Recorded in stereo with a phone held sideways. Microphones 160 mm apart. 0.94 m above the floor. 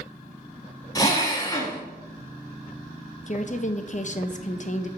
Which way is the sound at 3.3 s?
50° left (ahead or behind).